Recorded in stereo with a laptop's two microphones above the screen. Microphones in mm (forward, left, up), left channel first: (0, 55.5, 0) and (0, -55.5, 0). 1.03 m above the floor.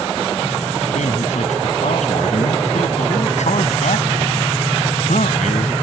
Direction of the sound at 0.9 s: 85° left.